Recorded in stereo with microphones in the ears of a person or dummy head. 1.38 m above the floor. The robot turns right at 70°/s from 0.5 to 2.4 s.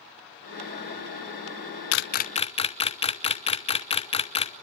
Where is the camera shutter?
65° left (ahead or behind), 0.6 m; by 4.5 s 30° left (ahead or behind), 0.6 m.